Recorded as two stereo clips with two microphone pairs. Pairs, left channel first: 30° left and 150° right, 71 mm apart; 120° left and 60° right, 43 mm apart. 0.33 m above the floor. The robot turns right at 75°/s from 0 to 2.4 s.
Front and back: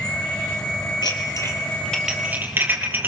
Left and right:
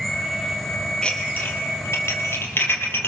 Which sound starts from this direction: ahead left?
Dishes clattering, at 1.0 s.